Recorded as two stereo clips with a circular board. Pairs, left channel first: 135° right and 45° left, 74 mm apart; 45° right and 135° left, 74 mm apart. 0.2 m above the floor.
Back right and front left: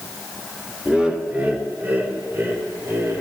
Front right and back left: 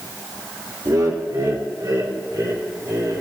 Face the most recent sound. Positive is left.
turn(degrees=95)